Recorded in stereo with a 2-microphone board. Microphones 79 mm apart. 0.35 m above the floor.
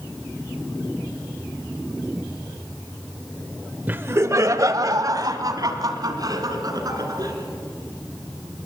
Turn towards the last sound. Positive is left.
turn(degrees=-50)  # may be behind; listen again after turning